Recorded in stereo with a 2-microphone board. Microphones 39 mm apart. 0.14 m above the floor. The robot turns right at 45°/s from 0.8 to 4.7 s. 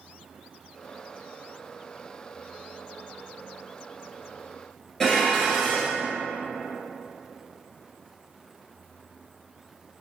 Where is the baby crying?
I don't hear a baby crying.